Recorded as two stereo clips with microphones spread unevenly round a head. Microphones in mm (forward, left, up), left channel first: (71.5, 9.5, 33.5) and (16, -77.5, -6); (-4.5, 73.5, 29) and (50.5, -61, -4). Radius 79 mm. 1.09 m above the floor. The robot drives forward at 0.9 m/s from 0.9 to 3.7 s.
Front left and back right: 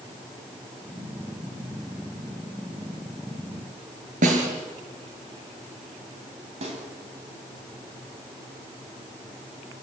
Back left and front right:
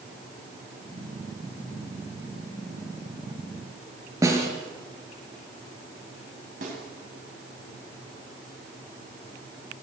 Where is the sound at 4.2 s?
140° right, 6.5 m.